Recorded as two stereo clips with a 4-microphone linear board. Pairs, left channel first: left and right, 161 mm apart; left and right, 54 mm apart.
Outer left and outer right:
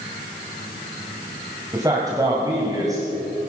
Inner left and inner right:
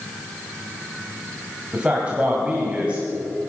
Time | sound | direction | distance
1.7 | a man speaking | 20° right (ahead or behind) | 2 m